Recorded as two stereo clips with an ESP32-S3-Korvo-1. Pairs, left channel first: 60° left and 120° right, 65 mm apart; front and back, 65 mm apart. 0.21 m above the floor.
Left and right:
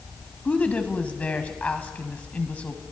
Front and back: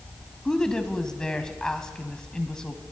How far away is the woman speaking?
About 1.0 m.